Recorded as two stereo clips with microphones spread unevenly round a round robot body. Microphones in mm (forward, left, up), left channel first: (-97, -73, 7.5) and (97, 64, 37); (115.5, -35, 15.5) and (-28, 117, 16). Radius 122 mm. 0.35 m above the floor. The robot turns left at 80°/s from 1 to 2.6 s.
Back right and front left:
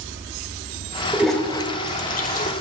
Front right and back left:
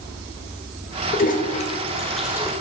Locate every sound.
1.1 s a toilet flushing: 50° right, 0.9 m; by 2.5 s 165° right, 0.9 m